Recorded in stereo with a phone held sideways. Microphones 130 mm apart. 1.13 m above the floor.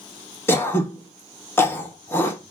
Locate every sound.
0.5 s throat clearing: 15° left (ahead or behind), 0.9 m